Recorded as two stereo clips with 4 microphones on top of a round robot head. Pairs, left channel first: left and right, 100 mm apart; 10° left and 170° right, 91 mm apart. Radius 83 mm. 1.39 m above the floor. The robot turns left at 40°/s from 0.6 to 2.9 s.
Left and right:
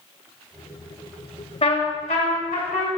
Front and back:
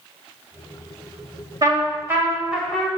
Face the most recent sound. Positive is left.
turn(degrees=95)